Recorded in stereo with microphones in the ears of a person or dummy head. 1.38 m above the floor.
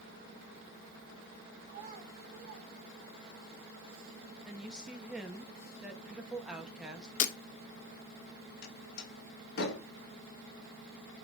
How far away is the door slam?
About 3.5 m.